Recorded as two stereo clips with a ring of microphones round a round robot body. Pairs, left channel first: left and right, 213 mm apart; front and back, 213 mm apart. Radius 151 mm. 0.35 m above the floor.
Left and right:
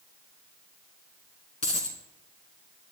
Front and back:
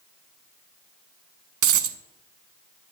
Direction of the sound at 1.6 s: 160° left.